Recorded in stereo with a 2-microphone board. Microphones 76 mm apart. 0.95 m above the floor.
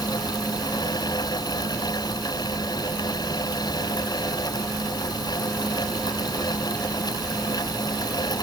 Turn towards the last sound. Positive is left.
No sound to turn to.